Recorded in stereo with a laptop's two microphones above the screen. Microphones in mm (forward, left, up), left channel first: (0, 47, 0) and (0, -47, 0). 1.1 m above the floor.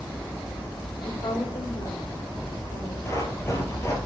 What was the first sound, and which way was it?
A woman speaking, 70° left (ahead or behind).